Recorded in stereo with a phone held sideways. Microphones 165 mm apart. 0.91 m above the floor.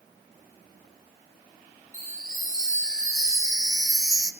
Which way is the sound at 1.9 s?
20° right (ahead or behind).